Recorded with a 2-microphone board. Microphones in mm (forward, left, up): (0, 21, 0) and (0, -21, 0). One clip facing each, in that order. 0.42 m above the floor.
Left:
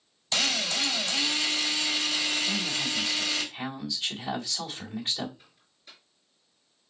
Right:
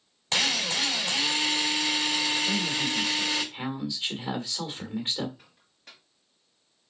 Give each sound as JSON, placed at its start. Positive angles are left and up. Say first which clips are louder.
{"t": 0.3, "sound": "a drill", "louder": "right 1 dB", "side_deg": -60, "distance_m": 3.0}
{"t": 2.4, "sound": "a man speaking", "louder": "right 2 dB", "side_deg": -30, "distance_m": 1.6}
{"t": 5.4, "sound": "a microwave", "louder": "right 2 dB", "side_deg": -65, "distance_m": 2.0}